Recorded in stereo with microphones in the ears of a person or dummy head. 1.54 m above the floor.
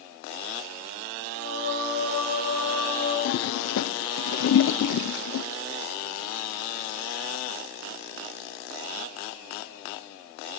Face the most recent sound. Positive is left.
turn(degrees=70)  # may be behind; listen again after turning